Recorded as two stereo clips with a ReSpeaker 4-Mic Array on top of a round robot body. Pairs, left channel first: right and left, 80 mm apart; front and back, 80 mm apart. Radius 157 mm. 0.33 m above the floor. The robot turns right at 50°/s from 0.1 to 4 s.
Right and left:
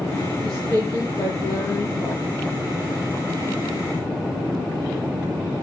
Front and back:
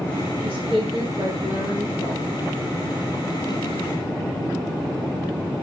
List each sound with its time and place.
0.4 s a woman speaking: 175° left, 7 m; by 2.2 s 95° right, 7 m